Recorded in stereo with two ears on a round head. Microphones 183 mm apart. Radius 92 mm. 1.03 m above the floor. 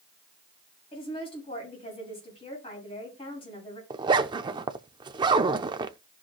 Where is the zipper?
20° right (ahead or behind), 0.6 m.